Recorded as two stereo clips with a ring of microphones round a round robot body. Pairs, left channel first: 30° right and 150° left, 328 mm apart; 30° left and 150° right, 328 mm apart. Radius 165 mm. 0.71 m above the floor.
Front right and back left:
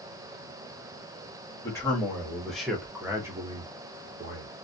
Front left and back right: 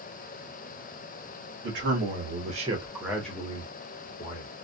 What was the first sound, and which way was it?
A man speaking, 110° right.